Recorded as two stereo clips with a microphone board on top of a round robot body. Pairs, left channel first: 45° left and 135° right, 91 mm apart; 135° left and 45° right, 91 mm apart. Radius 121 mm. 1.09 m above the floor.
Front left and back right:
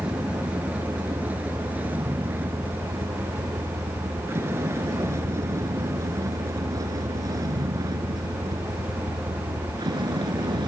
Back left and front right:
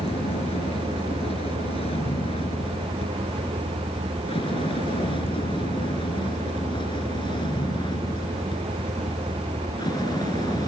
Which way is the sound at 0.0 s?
145° left.